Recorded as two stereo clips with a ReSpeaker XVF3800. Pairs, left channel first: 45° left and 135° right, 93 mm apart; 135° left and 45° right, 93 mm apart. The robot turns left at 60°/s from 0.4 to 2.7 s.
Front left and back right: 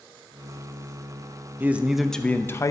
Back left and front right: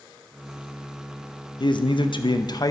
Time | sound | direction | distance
1.6 | a man speaking | 160° left | 0.6 m